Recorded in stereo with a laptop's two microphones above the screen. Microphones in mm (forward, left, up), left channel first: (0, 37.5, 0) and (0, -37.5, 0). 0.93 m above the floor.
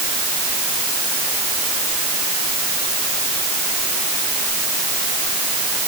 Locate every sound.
Only background noise.